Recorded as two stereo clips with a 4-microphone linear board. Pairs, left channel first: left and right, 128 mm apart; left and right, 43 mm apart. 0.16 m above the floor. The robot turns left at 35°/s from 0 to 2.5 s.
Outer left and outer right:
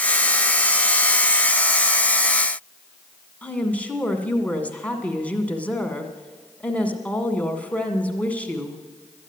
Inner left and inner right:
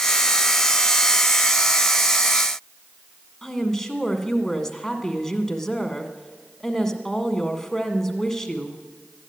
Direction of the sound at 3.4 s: 10° left (ahead or behind).